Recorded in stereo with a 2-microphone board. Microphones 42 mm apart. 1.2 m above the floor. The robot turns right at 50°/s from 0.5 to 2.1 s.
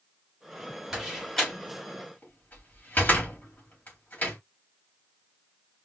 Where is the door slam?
10° right (ahead or behind), 3 m; by 4.4 s 50° left (ahead or behind), 3 m.